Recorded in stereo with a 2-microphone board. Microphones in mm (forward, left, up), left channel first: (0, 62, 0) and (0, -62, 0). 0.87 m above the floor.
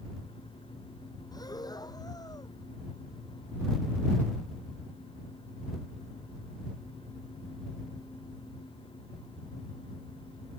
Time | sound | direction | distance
1.3 | breathing | 30° left (ahead or behind) | ?